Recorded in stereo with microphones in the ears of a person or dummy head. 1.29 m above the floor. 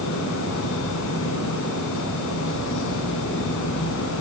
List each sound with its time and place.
0.0 s a fan: 70° left (ahead or behind), 5 m